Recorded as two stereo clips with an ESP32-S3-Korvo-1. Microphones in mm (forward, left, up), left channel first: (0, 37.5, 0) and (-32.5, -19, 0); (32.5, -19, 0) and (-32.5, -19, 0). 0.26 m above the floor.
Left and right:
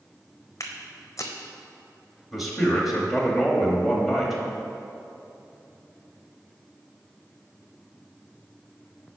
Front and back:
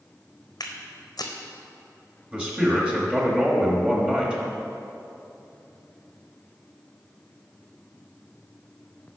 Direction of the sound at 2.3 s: 155° left.